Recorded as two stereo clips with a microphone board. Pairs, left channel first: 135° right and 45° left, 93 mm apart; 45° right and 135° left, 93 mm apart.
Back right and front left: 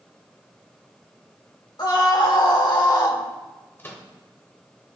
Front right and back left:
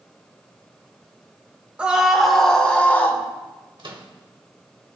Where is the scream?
150° right, 1.5 m; by 3.2 s 105° right, 1.7 m.